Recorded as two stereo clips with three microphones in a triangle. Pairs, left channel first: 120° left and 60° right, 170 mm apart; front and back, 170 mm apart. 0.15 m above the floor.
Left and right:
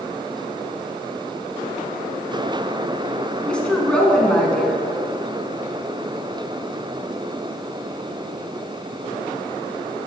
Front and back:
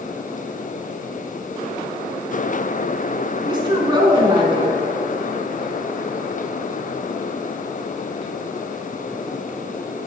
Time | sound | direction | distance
3.5 | a woman speaking | 160° right | 1.2 m